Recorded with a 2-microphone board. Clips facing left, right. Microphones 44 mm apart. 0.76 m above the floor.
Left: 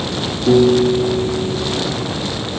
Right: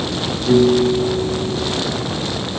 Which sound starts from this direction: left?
A piano, at 0.5 s.